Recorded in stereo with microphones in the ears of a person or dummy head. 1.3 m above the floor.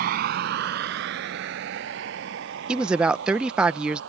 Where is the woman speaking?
Centre (ahead or behind).